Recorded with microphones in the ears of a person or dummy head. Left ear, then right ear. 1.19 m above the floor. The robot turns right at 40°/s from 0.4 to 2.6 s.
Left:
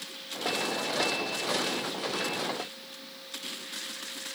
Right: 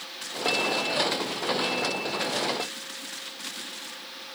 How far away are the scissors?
No scissors in this recording.